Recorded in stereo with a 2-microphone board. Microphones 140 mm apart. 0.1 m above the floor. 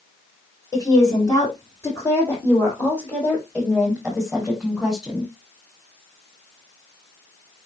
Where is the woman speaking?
30° left (ahead or behind), 6 m; by 5.3 s 5° right (ahead or behind), 4.5 m.